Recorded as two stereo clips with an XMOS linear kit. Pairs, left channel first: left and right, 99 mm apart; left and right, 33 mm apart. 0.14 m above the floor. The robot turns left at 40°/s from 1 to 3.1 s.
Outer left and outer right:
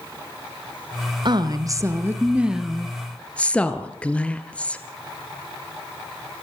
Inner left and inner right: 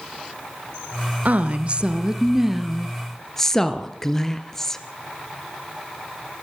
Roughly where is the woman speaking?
Behind right.